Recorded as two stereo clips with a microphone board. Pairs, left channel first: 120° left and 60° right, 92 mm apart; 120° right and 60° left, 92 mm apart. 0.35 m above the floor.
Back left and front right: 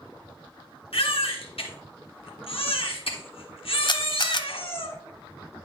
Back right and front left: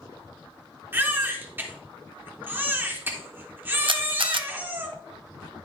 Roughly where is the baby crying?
Behind left.